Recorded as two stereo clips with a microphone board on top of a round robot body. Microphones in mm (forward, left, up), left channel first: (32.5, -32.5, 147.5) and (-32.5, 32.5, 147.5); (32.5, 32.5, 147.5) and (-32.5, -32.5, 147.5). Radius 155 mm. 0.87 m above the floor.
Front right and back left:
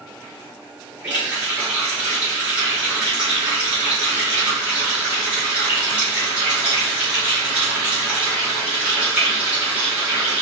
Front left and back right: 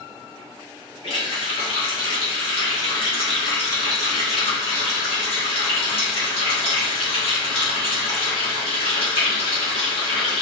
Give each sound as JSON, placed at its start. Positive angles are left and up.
{"t": 1.0, "sound": "a running tap", "azimuth_deg": 60, "distance_m": 2.5}